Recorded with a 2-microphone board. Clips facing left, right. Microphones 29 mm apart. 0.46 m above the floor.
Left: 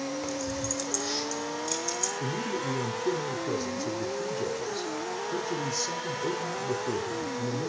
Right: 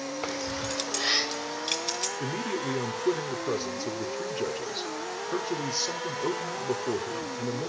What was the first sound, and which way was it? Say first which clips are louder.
Keys jangling: right 1 dB; 40° right (ahead or behind).